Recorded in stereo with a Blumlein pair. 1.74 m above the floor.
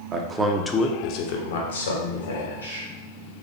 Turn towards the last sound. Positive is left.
turn(degrees=80)